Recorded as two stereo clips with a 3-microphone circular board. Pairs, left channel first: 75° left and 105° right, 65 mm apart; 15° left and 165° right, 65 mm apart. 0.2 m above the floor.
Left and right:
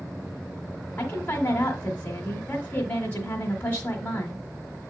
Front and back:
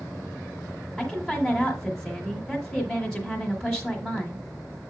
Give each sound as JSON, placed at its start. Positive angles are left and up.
{"t": 1.0, "sound": "a woman speaking", "azimuth_deg": 95, "distance_m": 1.3}